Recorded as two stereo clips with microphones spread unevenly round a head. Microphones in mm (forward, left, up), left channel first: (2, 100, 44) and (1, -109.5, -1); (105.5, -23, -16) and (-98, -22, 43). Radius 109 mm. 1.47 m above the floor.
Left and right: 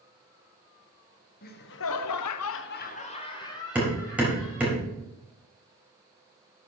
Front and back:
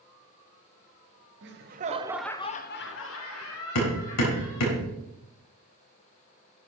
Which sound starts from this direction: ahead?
Hammering, at 3.8 s.